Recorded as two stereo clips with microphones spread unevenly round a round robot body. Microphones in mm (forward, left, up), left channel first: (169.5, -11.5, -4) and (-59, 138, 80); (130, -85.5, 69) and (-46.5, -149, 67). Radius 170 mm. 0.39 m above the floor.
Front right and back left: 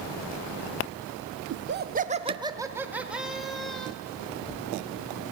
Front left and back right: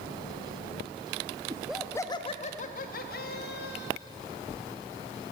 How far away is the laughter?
About 0.8 m.